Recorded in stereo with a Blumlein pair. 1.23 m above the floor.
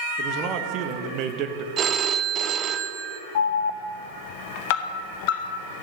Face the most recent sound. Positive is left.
turn(degrees=50)